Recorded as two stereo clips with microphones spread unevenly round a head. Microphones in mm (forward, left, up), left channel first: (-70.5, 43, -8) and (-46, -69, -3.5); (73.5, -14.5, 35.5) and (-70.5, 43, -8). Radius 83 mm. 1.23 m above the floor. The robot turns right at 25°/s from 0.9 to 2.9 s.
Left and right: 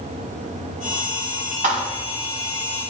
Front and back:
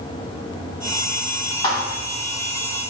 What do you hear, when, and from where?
1.6 s a thud: 80° right, 1.6 m; by 2.0 s 75° right, 1.6 m